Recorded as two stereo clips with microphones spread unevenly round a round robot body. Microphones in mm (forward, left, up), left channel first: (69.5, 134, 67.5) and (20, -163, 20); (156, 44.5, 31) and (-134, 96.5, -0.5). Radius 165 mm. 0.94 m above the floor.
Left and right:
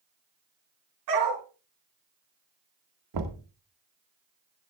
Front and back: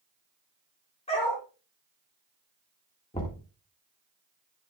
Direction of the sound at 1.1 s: 80° right.